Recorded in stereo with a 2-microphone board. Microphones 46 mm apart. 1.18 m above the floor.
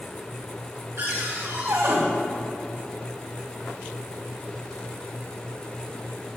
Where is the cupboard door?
75° right (ahead or behind), 1.8 m.